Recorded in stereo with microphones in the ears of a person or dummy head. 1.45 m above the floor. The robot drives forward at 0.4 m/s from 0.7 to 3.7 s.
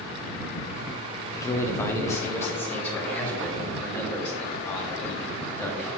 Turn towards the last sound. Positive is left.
turn(degrees=10)  # may be behind; listen again after turning